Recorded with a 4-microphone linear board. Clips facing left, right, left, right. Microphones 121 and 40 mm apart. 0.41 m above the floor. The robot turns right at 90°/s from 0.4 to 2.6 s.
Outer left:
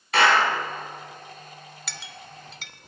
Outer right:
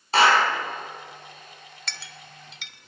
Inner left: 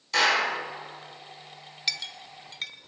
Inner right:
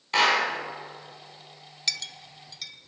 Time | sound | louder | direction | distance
0.1 | a clap | outer right 1 dB, inner right 1 dB | 30° right (ahead or behind) | 3.5 m
1.9 | a clink | even, inner left 1 dB | 5° left (ahead or behind) | 0.6 m